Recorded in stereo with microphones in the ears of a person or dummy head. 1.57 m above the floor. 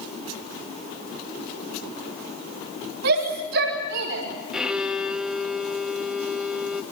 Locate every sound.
3.0 s a shout: 80° right, 4.5 m; by 4.2 s 85° right, 5.5 m
4.5 s a violin: 5° right (ahead or behind), 1.1 m